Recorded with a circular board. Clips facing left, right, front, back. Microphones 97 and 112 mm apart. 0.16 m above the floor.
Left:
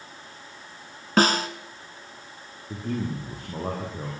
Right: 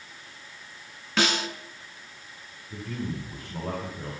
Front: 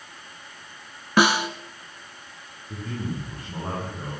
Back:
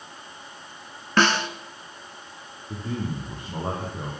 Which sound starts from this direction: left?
A snare drum, at 1.2 s.